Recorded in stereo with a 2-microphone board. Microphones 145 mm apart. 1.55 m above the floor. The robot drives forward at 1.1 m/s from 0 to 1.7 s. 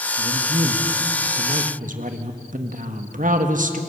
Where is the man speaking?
50° right (ahead or behind), 1.9 m; by 3.8 s 65° right (ahead or behind), 1.6 m.